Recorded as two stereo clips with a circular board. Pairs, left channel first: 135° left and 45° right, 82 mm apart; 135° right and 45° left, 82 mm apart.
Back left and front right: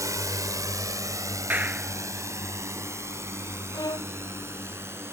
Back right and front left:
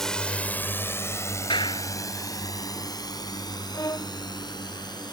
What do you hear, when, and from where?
0.0 s a drone: 50° right; by 5.1 s 105° right
1.5 s a clap: 115° right
3.7 s a violin: 175° left